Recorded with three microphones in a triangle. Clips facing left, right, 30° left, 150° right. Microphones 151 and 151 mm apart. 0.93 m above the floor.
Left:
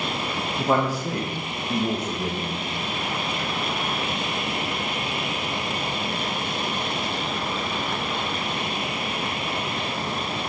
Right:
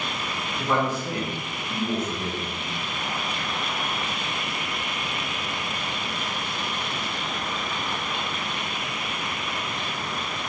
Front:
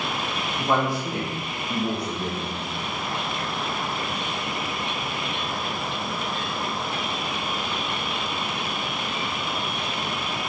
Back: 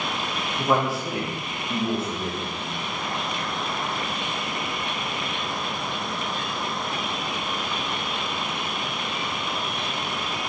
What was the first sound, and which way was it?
A man speaking, 125° left.